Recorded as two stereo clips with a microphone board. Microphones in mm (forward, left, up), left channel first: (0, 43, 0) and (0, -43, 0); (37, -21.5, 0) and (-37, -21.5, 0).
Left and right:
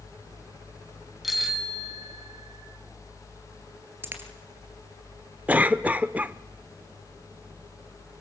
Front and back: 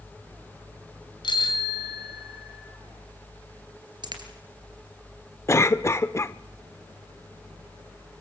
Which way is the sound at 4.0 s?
155° right.